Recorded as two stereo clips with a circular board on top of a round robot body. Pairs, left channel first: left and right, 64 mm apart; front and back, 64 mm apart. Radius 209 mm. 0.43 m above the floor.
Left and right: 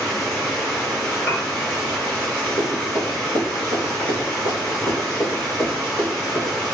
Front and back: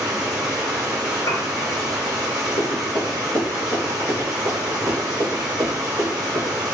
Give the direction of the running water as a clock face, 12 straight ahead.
6 o'clock.